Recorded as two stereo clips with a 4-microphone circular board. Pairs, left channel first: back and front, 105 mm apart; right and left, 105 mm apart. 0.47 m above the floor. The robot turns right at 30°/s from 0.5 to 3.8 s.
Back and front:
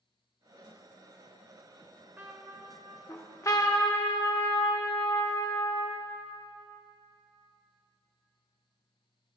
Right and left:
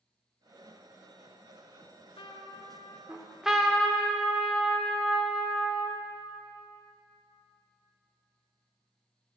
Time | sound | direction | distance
1.8 | a trumpet | 80° right | 0.9 m
3.1 | a trumpet | 160° left | 1.1 m